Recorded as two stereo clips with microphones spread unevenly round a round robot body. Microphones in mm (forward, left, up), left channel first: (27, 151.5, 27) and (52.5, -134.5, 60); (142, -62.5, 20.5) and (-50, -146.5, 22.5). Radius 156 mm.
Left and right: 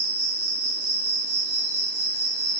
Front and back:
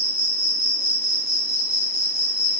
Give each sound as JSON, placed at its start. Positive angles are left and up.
{"t": 0.0, "sound": "an insect", "azimuth_deg": -30, "distance_m": 6.0}